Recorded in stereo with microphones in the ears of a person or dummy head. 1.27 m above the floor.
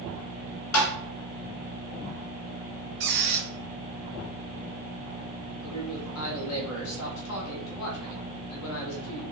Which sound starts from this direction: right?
A squeak, at 3.0 s.